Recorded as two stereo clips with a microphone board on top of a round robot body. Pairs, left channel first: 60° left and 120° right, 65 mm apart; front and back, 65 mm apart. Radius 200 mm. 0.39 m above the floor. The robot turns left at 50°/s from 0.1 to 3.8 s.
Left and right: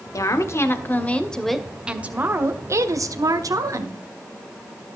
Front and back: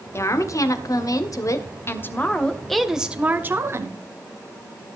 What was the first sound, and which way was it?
A woman speaking, 40° left.